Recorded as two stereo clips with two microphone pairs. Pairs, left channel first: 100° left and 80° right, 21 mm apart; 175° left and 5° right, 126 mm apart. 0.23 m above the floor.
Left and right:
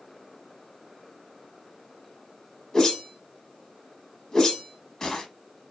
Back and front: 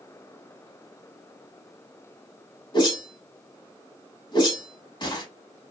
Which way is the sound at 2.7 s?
140° left.